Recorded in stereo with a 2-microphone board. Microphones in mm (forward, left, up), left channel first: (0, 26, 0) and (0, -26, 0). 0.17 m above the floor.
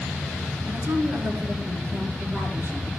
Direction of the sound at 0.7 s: 50° right (ahead or behind).